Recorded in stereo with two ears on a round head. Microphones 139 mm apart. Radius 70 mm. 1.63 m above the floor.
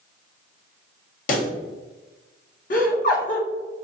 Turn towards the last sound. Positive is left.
turn(degrees=55)  # may be behind; listen again after turning